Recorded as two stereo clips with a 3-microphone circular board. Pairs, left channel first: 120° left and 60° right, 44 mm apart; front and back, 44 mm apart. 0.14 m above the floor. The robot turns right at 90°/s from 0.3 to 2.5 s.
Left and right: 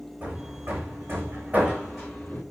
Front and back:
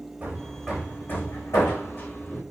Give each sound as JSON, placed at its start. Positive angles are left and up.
{"t": 0.2, "sound": "hammering", "azimuth_deg": -115, "distance_m": 5.0}